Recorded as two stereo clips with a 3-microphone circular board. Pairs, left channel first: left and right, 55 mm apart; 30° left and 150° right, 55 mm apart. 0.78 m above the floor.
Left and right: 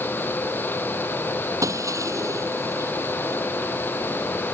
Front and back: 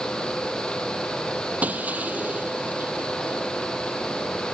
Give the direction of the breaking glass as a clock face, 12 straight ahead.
3 o'clock.